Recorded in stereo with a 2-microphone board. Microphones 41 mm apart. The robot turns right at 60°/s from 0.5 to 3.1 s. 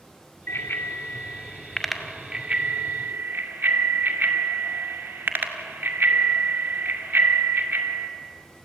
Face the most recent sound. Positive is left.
turn(degrees=-55)  # may be behind; listen again after turning